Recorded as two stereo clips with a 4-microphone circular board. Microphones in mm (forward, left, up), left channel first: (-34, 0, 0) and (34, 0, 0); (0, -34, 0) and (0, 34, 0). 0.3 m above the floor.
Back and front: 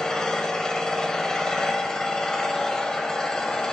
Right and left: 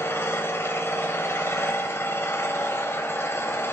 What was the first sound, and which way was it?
An engine running, 105° right.